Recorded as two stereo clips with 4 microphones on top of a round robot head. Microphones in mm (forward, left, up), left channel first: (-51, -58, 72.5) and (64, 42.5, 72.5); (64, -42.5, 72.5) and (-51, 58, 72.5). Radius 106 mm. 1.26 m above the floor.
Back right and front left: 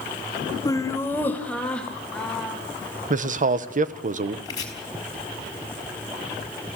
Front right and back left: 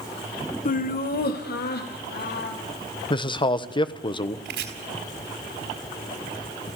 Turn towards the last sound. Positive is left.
turn(degrees=155)